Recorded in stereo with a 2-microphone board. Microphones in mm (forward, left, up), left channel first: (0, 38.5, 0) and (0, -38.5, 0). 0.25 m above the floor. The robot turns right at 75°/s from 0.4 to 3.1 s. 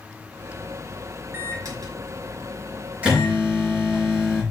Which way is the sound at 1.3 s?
145° right.